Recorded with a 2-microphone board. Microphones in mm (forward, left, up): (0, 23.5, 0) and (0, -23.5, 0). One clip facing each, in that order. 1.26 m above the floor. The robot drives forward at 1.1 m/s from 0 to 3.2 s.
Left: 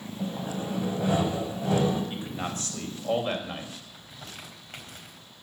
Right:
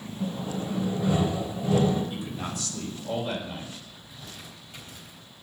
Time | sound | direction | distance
0.2 | sawing | 75° left (ahead or behind) | 7 m
2.1 | a man speaking | 40° left (ahead or behind) | 6 m
3.9 | crumpling | 60° left (ahead or behind) | 4 m